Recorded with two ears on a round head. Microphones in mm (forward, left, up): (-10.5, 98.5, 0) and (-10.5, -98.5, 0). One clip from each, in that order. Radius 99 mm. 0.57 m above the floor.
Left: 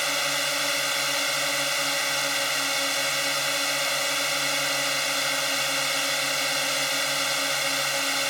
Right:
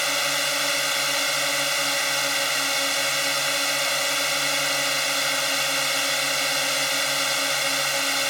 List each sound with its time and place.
0.0 s a drone: 5° right (ahead or behind)